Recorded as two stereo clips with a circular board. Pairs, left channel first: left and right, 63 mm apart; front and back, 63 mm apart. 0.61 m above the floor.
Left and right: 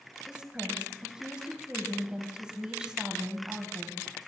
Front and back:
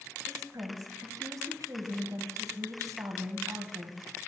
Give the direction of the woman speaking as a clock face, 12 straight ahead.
6 o'clock.